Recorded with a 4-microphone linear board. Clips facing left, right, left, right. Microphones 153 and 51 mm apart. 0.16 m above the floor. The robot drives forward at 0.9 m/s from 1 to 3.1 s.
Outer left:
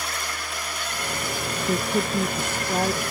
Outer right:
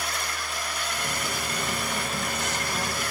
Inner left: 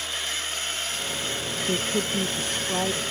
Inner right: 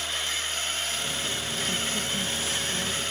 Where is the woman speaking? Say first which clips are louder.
Outer left 7 dB, inner left 7 dB; 60° left (ahead or behind); by 3.0 s 50° left (ahead or behind).